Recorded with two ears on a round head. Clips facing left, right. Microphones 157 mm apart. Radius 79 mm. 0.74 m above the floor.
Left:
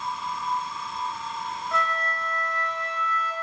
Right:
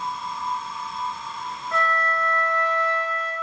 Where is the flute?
Centre (ahead or behind), 2 m.